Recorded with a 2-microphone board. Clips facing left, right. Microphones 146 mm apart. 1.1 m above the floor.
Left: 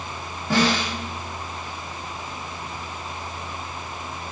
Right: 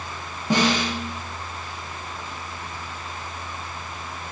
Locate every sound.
0.5 s a snare drum: 20° right (ahead or behind), 0.6 m